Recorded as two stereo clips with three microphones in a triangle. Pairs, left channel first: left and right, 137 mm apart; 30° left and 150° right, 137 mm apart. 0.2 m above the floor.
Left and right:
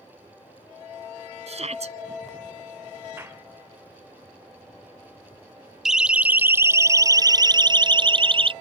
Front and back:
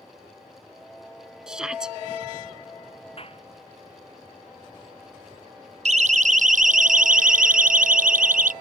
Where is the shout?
65° right.